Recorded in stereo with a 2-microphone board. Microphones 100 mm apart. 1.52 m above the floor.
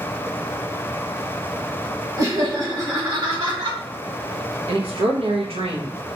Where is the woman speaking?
75° right (ahead or behind), 0.7 m.